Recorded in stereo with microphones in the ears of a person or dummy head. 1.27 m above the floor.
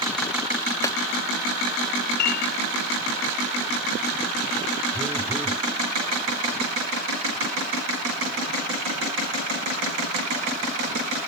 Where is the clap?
20° left (ahead or behind).